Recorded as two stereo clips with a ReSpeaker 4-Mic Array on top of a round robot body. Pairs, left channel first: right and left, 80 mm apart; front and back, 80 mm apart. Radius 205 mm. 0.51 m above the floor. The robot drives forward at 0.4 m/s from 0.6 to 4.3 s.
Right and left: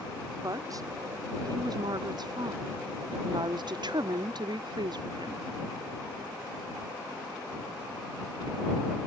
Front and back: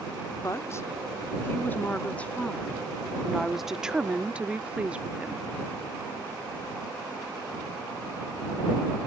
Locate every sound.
0.4 s a woman speaking: 50° left; by 5.5 s 105° left